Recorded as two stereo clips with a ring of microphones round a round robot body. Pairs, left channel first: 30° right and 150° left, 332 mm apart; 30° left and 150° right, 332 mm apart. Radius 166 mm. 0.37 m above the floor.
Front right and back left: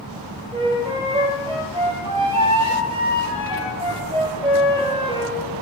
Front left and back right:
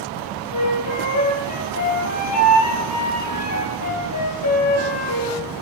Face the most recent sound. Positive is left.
turn(degrees=75)